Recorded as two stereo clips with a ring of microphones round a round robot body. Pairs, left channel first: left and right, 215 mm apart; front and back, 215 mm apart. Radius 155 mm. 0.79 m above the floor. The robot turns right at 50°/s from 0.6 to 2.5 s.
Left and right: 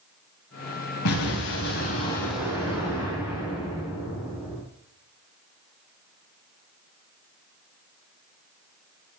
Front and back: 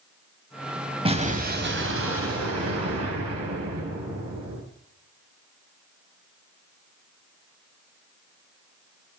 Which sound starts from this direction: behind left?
An explosion, at 1.1 s.